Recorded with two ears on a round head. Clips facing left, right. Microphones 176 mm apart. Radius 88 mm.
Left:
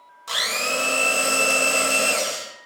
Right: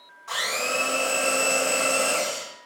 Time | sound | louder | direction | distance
0.3 | a blender | left 1 dB | 50° left (ahead or behind) | 0.8 m